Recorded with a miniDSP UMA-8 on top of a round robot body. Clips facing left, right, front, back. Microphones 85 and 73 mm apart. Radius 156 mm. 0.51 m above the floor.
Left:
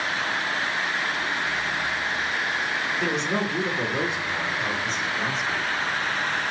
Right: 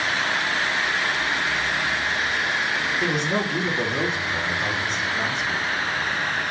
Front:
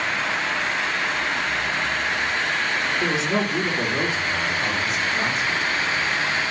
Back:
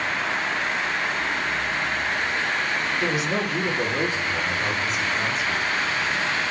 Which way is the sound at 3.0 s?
10° right.